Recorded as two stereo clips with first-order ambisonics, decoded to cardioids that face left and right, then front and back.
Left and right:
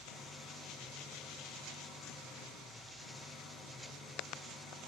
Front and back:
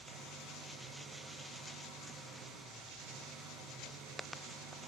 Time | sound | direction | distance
0.0 | an engine running | 135° left | 3 m